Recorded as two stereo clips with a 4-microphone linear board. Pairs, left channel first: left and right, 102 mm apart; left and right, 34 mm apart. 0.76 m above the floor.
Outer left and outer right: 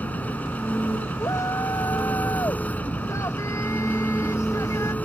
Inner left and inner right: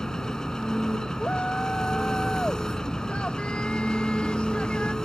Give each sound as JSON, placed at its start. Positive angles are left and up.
{"t": 0.0, "sound": "an engine running", "side_deg": 15}
{"t": 1.2, "sound": "a shout", "side_deg": 35}